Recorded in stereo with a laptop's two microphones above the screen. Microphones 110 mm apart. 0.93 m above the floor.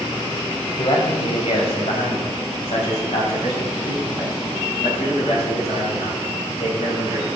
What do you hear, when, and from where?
0.8 s a man speaking: 55° left (ahead or behind), 4.5 m; by 7.3 s 80° left, 11 m